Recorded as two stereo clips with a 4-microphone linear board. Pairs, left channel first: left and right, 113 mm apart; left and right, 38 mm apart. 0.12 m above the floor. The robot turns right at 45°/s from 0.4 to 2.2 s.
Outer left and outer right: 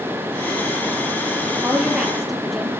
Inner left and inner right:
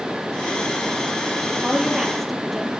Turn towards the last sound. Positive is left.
turn(degrees=0)  # may be behind; listen again after turning